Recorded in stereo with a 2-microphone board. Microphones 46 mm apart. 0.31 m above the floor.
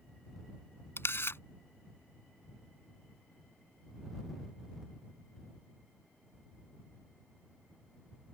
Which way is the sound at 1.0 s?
60° left (ahead or behind).